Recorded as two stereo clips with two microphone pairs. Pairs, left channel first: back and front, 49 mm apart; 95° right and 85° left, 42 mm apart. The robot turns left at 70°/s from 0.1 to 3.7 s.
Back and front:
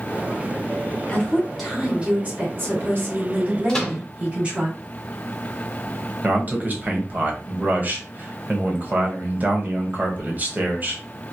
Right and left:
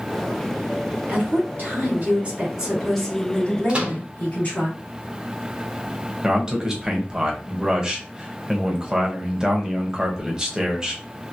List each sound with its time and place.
1.1 s a woman speaking: 120° left, 2 m; by 4.7 s 65° right, 2 m
3.7 s a microwave: 115° left, 1.3 m
6.2 s a man speaking: 25° left, 1.2 m